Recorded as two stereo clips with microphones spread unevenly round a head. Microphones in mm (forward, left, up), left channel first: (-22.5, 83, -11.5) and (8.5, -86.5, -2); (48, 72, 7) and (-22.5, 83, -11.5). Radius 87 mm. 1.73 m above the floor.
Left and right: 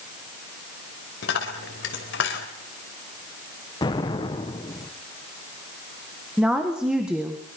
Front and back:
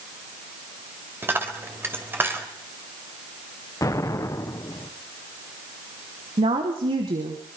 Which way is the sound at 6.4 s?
165° right.